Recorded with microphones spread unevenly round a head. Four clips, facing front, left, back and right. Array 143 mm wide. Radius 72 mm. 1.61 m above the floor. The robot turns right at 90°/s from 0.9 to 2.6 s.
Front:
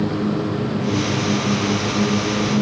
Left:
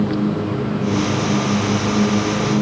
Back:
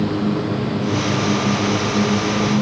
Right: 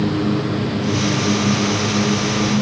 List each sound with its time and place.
Only background noise.